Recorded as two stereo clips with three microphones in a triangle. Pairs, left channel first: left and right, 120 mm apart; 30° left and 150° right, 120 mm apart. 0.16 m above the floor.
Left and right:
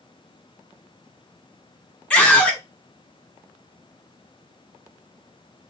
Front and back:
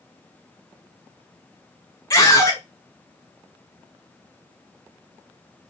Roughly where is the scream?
Ahead.